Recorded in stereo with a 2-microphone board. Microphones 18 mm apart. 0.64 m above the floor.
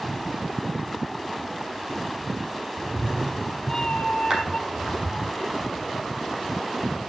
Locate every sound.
2.8 s a cat meowing: 20° left (ahead or behind), 0.8 m; by 5.3 s 65° left (ahead or behind), 2.0 m
4.3 s a clap: 40° right (ahead or behind), 5.5 m